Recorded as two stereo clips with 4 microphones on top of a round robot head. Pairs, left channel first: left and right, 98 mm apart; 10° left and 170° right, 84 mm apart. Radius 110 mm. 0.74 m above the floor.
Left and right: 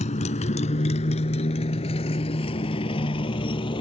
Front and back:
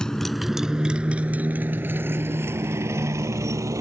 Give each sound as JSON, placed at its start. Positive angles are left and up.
{"t": 0.0, "sound": "a motorcycle", "azimuth_deg": 90}